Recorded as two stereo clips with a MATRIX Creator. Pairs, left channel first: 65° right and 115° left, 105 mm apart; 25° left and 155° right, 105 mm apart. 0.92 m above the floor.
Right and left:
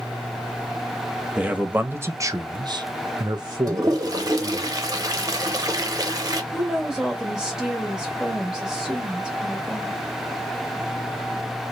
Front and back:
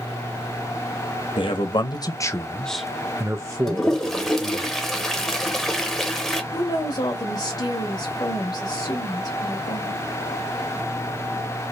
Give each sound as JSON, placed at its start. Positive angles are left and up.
{"t": 1.4, "sound": "a man speaking", "azimuth_deg": 35, "distance_m": 0.9}
{"t": 3.7, "sound": "a toilet flushing", "azimuth_deg": 110, "distance_m": 0.7}
{"t": 6.5, "sound": "a woman speaking", "azimuth_deg": 30, "distance_m": 0.9}